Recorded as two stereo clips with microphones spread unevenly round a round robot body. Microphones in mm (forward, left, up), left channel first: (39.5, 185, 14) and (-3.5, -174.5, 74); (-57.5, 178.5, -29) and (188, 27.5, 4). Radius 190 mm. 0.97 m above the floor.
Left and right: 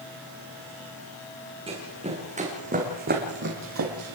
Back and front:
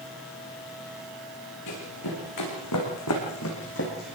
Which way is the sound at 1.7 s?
170° right.